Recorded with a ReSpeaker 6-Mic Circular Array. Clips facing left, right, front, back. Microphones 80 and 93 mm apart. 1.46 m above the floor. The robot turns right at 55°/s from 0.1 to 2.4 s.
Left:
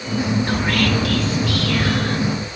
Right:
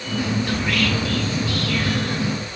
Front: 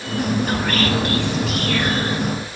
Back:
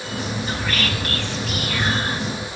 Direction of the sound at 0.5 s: 35° left.